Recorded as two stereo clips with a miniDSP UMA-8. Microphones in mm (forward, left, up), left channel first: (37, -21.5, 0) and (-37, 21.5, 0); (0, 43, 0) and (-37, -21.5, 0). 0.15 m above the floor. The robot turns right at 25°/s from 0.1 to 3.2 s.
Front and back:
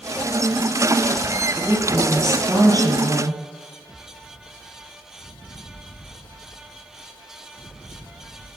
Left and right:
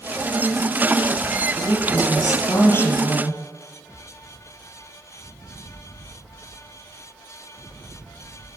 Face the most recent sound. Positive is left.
turn(degrees=125)